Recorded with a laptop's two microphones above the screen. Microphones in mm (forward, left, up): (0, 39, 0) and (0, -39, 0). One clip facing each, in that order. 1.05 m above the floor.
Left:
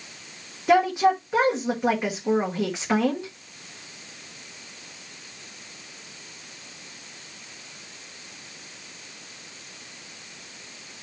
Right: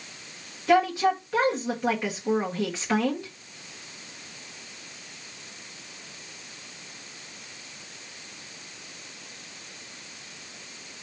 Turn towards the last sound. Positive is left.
turn(degrees=20)  # may be behind; listen again after turning